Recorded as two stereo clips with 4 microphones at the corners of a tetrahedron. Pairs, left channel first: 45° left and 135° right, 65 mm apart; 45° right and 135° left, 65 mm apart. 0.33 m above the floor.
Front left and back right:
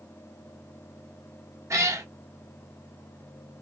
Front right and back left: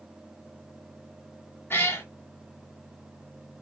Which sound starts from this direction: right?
A cat meowing, at 1.7 s.